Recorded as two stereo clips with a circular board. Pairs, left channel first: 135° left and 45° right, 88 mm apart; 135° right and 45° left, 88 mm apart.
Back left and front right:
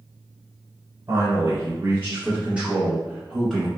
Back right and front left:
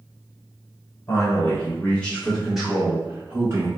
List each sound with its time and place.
1.1 s a man speaking: 90° right, 1.3 m; by 3.7 s 55° left, 1.1 m